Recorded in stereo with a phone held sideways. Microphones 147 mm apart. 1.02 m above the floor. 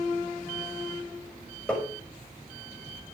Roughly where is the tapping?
Centre.